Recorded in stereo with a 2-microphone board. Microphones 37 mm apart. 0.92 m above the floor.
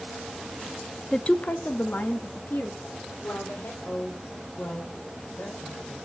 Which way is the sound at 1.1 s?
15° left (ahead or behind).